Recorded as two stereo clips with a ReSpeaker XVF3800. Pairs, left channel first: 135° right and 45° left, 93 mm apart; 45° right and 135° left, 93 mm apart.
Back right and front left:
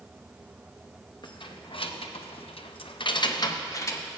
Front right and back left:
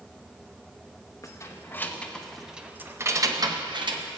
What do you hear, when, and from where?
1.2 s keys jangling: 100° right, 1.0 m; by 4.0 s 165° left, 1.0 m